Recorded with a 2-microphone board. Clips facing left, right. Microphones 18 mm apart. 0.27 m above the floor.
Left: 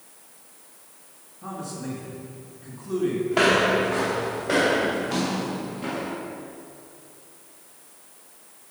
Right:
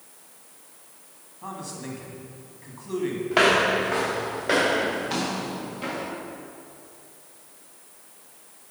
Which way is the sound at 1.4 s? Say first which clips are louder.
Left 2 dB; 55° right (ahead or behind).